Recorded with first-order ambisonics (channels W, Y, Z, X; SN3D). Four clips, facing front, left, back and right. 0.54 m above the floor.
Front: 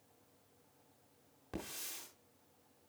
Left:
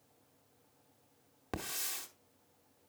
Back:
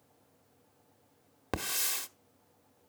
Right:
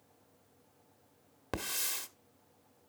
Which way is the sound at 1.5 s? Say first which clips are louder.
Right 3 dB, back 12 dB; 165° right.